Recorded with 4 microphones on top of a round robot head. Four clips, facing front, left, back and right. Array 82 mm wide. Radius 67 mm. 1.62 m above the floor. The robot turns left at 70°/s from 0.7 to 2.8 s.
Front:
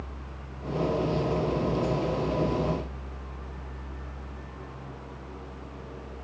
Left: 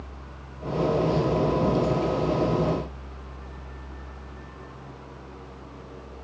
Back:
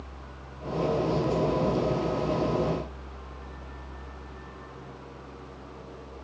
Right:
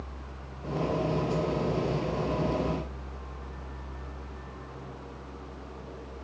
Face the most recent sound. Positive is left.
No sound to turn to.